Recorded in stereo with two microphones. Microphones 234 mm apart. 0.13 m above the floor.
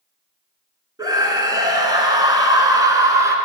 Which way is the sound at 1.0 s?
15° right (ahead or behind).